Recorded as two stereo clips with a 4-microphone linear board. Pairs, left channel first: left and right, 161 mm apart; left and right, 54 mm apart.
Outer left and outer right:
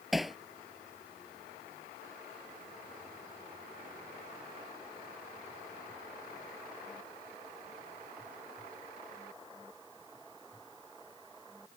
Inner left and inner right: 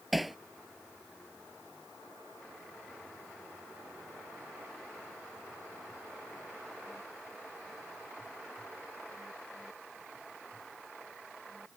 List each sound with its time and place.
0.1 s hammering: centre (ahead or behind)